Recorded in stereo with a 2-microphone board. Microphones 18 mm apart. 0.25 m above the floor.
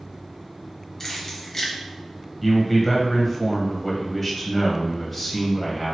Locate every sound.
1.0 s keys jangling: 30° left (ahead or behind), 0.7 m
2.4 s a man speaking: 15° left (ahead or behind), 0.9 m